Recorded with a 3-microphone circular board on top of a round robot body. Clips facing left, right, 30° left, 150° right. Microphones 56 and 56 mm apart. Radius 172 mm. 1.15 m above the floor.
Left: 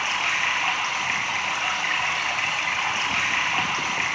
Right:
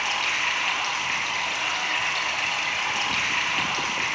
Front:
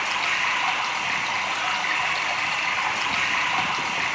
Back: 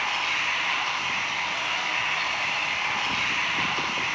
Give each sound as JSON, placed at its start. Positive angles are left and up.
{"t": 0.0, "sound": "running water", "azimuth_deg": 25, "distance_m": 2.5}